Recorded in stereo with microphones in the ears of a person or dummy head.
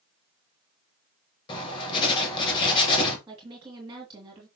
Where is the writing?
25° left (ahead or behind), 2.5 m.